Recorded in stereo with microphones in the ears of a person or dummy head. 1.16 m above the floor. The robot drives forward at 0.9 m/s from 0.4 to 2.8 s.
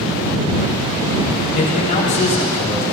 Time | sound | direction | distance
1.6 | a man speaking | 45° left (ahead or behind) | 3 m